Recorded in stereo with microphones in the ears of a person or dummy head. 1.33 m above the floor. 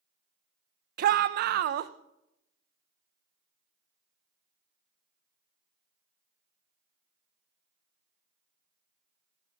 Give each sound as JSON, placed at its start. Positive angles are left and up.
{"t": 1.0, "sound": "a shout", "side_deg": -55, "distance_m": 0.7}